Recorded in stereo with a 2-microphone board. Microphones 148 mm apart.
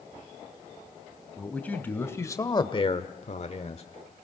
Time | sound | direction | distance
1.4 | a man speaking | 10° left (ahead or behind) | 2.5 m